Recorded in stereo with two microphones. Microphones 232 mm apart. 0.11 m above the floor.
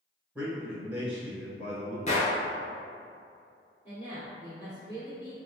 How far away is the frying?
No frying in this recording.